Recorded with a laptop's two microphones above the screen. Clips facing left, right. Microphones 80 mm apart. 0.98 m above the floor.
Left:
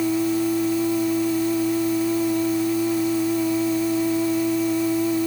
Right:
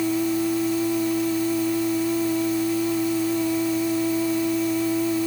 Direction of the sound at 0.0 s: 5° left (ahead or behind).